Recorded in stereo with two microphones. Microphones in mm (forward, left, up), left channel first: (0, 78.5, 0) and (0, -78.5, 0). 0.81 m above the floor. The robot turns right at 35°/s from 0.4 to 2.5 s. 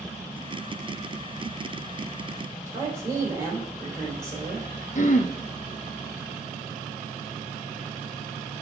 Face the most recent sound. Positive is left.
turn(degrees=55)  # may be behind; listen again after turning